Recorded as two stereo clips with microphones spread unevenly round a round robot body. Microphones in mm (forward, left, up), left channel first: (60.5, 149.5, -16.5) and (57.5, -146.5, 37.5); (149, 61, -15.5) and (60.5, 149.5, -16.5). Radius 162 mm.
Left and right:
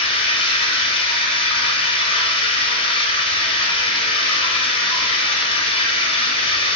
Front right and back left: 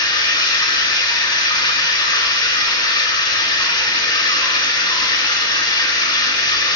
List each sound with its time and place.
0.0 s running water: 15° left, 1.0 m